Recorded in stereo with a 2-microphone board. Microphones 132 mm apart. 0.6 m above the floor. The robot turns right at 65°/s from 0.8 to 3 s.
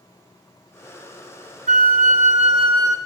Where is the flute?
105° right, 0.7 m; by 3.0 s 20° right, 0.7 m.